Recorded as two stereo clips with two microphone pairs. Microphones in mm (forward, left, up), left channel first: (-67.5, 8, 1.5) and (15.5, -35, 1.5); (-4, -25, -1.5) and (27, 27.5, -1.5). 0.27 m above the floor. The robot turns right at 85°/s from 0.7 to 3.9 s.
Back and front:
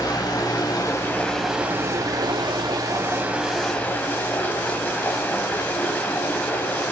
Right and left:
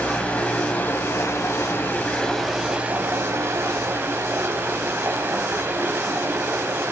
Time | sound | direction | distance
0.0 | running water | straight behind | 1.0 m